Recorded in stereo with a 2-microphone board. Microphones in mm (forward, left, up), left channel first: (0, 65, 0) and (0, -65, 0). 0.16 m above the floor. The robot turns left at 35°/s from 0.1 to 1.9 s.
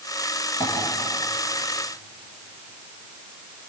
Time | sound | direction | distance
0.6 | tapping | 40° left (ahead or behind) | 10 m